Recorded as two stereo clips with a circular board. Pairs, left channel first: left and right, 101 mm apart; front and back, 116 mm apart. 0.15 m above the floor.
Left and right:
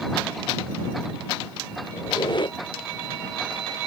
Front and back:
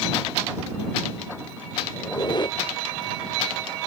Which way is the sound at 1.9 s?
50° left.